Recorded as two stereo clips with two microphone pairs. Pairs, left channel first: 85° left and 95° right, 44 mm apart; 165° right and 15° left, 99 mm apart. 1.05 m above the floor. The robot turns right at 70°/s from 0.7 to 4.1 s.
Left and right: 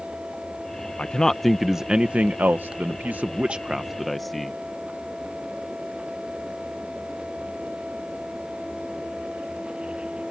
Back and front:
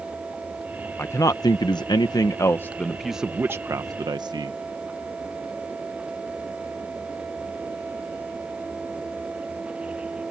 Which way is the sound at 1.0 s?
140° left.